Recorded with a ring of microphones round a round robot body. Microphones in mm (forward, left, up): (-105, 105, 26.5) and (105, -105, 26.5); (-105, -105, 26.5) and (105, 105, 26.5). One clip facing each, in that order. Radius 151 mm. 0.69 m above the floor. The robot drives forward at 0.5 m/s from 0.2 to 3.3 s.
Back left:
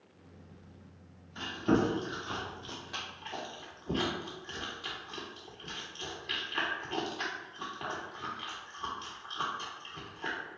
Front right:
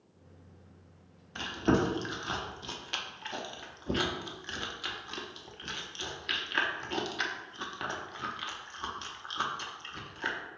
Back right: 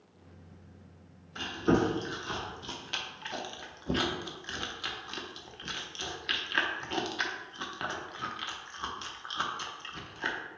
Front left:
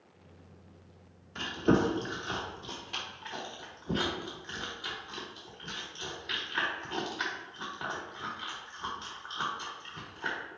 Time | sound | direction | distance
1.4 | chewing | 40° right | 1.2 m